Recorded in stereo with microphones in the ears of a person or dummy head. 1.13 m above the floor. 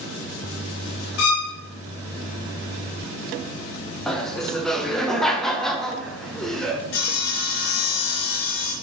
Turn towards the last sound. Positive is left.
turn(degrees=75)  # may be behind; listen again after turning